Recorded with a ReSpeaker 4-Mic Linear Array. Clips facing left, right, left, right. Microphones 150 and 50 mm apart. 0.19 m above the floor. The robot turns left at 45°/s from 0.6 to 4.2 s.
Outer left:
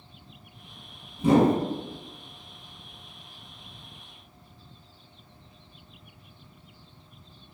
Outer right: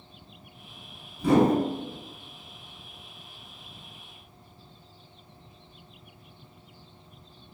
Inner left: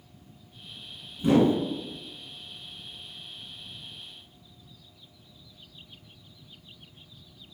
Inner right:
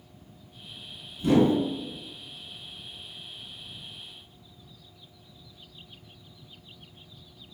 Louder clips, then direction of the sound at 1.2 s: Outer left 1 dB, even; 20° left (ahead or behind).